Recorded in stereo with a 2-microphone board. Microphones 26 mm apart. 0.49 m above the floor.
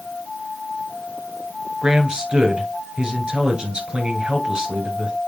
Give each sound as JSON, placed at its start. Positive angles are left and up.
{"t": 1.8, "sound": "a man speaking", "side_deg": -35, "distance_m": 2.5}